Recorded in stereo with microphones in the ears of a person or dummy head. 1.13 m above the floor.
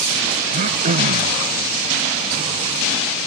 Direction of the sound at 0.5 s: 45° right (ahead or behind).